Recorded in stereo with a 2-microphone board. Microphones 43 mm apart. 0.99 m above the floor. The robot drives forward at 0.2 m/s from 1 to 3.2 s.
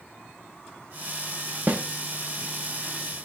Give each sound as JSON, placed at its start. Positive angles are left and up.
{"t": 1.7, "sound": "a snare drum", "side_deg": -35, "distance_m": 0.8}